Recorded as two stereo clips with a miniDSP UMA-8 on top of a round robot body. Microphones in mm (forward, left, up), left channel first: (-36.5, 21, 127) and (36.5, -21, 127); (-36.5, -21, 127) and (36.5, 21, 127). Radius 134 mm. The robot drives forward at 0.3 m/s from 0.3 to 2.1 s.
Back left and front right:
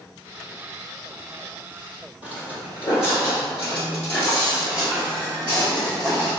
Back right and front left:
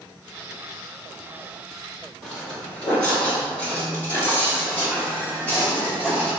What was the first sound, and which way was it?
Footsteps, 125° left.